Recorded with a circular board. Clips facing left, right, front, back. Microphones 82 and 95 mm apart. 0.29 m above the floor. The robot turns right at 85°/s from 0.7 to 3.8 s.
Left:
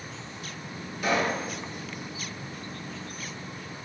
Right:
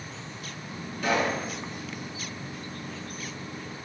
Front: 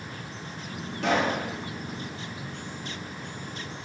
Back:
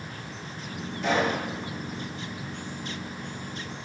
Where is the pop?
10° left, 3 m; by 1.4 s 45° left, 3 m.